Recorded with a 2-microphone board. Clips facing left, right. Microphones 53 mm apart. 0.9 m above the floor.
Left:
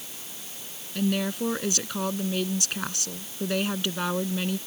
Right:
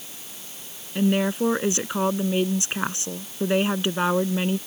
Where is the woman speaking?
25° right (ahead or behind).